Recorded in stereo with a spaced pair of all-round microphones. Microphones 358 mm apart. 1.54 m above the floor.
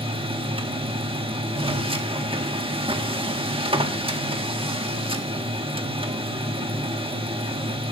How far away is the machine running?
About 1.8 m.